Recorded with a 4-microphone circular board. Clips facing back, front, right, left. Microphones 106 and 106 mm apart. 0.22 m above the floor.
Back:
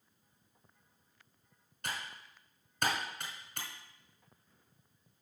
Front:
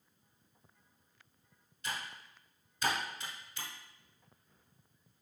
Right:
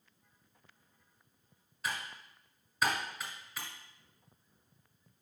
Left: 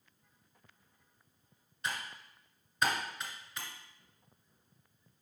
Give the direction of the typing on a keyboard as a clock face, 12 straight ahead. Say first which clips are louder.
Even, even; 6 o'clock.